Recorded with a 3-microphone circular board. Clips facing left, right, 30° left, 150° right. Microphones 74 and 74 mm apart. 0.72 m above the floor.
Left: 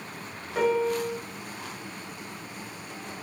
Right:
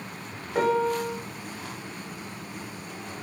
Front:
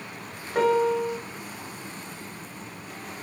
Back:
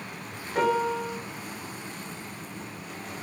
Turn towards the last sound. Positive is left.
turn(degrees=-50)